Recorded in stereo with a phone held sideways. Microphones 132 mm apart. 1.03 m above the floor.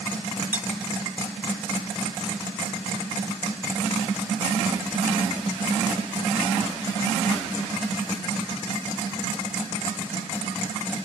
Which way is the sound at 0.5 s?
15° right (ahead or behind).